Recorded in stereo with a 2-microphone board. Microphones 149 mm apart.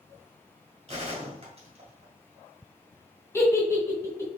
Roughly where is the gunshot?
Right.